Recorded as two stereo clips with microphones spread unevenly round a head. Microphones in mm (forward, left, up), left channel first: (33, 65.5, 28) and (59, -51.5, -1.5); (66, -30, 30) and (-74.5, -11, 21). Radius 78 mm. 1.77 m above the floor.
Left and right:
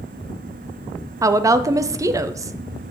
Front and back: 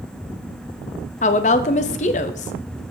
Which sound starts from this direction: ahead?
A woman speaking, at 1.2 s.